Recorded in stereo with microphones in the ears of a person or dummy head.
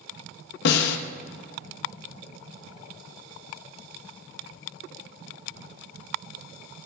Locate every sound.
0.7 s a snare drum: 65° left (ahead or behind), 1.2 m